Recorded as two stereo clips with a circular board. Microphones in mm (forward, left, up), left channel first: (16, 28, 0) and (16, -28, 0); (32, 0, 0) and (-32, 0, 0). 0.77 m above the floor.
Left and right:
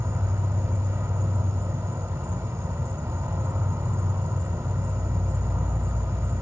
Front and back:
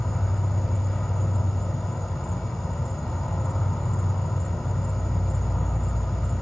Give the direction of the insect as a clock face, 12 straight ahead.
3 o'clock.